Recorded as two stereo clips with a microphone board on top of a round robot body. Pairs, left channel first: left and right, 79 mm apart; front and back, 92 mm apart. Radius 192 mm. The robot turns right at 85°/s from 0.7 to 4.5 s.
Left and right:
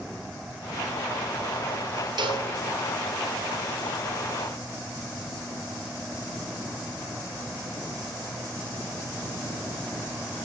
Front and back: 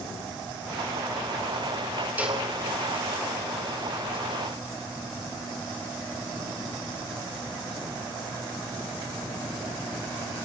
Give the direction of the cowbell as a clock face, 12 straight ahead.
4 o'clock.